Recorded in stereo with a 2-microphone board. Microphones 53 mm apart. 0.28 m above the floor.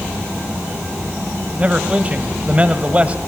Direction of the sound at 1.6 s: 25° right (ahead or behind).